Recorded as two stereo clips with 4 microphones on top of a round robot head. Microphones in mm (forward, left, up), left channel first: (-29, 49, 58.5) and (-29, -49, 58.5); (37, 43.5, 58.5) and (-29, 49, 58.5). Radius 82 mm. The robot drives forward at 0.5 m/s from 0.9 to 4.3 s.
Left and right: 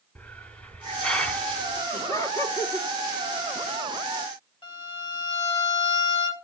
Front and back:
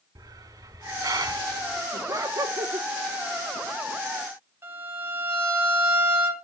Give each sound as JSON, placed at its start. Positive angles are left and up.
{"t": 0.1, "sound": "a hiss", "azimuth_deg": 165, "distance_m": 2.0}
{"t": 1.9, "sound": "laughter", "azimuth_deg": 145, "distance_m": 2.5}
{"t": 4.6, "sound": "a violin", "azimuth_deg": 125, "distance_m": 4.5}